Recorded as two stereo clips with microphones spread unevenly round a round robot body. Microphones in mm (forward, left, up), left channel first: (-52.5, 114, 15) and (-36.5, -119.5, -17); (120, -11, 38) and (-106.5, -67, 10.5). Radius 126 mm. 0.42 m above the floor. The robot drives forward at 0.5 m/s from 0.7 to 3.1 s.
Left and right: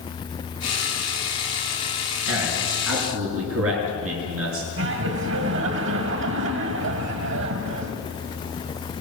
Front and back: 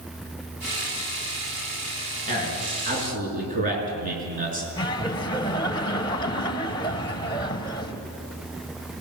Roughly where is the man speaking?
Right.